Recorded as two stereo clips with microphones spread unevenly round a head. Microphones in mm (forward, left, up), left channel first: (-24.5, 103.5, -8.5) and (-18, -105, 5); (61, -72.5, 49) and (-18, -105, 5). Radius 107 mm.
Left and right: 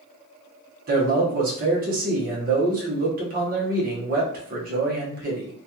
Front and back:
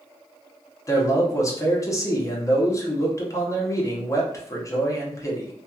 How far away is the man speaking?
About 1.1 m.